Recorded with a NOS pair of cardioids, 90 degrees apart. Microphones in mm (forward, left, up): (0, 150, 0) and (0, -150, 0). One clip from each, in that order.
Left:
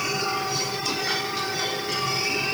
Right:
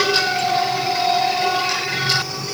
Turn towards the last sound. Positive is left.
No sound to turn to.